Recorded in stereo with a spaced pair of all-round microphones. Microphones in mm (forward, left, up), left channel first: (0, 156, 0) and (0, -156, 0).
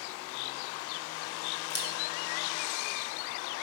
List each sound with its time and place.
1.7 s scissors: 35° left (ahead or behind), 2 m